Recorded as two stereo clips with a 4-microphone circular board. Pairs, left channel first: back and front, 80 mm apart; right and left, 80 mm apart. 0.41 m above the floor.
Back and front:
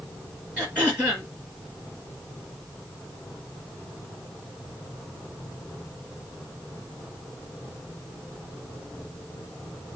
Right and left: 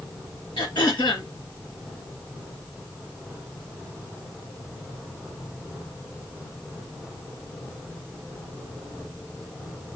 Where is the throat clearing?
70° right, 3.5 m.